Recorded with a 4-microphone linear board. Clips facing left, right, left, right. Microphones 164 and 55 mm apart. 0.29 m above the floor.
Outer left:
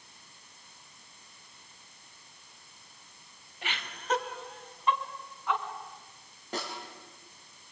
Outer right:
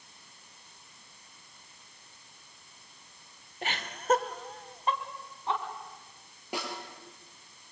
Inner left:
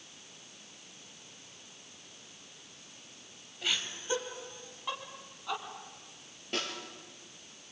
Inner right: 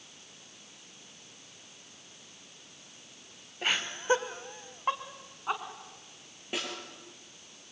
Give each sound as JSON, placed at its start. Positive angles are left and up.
{"t": 3.6, "sound": "laughter", "side_deg": -40, "distance_m": 1.4}
{"t": 6.5, "sound": "a snare drum", "side_deg": -10, "distance_m": 5.5}